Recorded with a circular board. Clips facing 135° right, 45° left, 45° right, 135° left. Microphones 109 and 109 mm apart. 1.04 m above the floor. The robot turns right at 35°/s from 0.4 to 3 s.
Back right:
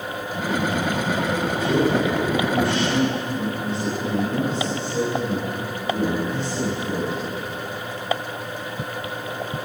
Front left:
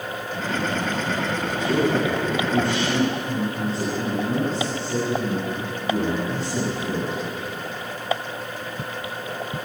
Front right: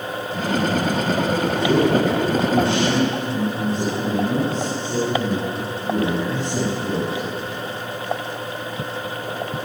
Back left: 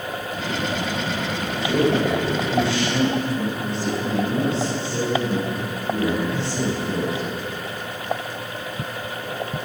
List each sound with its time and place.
1.6 s a man speaking: 55° right, 9.5 m; by 7.2 s 5° right, 9.5 m